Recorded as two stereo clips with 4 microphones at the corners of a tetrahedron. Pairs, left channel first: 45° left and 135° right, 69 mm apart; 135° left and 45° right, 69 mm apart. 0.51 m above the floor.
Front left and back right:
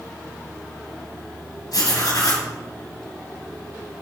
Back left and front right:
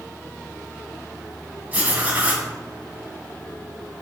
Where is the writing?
20° left, 2 m.